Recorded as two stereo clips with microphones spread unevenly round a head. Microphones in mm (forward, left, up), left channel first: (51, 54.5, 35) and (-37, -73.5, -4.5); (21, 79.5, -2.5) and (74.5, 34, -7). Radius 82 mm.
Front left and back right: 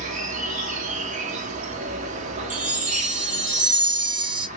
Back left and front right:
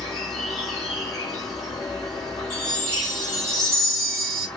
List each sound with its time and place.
0.0 s an insect: 155° right, 0.8 m
2.5 s a chime: 150° right, 1.1 m